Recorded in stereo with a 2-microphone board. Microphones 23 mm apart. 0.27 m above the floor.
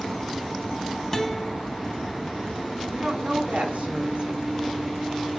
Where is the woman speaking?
60° right (ahead or behind), 3 m.